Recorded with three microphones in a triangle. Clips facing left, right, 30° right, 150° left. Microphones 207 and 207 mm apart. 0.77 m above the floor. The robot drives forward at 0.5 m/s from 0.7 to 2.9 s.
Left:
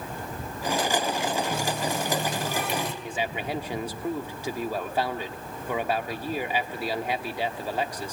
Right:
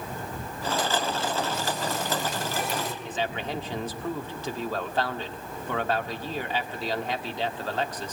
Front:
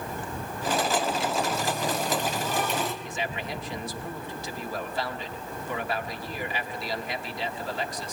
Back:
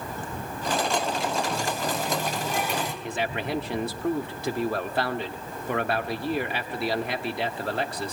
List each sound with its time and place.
1.5 s a running tap: 65° left, 4 m; by 2.9 s 70° left, 4 m
3.0 s a man speaking: 165° left, 1.7 m